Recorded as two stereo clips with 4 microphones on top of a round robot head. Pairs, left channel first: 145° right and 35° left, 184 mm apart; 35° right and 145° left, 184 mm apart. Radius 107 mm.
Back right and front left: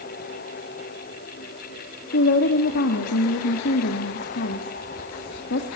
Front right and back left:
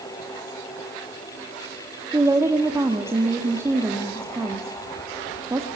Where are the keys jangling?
No keys jangling in this recording.